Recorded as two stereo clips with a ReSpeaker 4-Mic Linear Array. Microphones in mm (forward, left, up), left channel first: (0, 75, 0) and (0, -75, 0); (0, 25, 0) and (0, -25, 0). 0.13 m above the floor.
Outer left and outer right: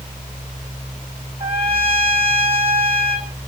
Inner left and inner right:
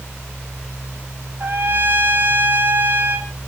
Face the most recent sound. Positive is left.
turn(degrees=-35)  # may be behind; listen again after turning